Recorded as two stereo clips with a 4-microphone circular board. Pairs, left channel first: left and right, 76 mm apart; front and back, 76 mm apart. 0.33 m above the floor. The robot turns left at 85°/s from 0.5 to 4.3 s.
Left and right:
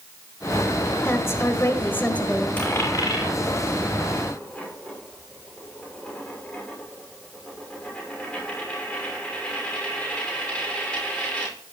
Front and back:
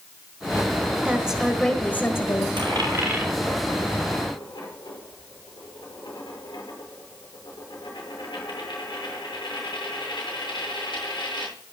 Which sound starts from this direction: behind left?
A woman speaking, at 1.1 s.